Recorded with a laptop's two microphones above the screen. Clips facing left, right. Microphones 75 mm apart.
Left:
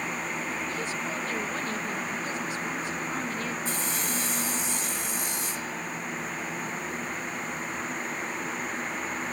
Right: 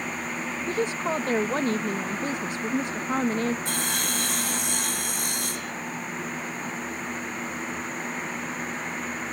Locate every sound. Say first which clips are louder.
0.7 s a woman speaking: right 6 dB; 55° right (ahead or behind)
3.6 s sawing: right 2 dB; 75° right (ahead or behind)